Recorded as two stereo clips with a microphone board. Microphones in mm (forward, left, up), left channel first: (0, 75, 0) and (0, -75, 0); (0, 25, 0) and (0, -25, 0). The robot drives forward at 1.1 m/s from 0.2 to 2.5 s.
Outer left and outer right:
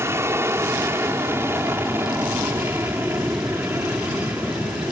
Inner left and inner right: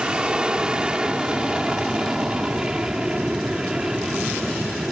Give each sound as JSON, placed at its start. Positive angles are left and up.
{"t": 0.0, "sound": "an aircraft", "side_deg": -15}